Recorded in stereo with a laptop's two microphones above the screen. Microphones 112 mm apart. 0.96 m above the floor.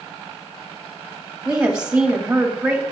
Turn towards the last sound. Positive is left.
turn(degrees=-10)  # may be behind; listen again after turning